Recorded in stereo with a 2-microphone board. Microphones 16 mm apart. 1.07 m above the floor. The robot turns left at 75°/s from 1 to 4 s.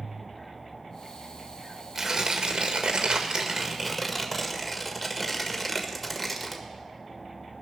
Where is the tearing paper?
30° right, 1.7 m; by 6.6 s straight behind, 1.7 m.